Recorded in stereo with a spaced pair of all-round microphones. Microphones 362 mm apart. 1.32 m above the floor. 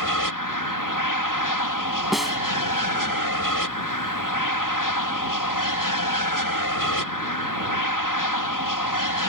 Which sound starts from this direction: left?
An aircraft, at 0.0 s.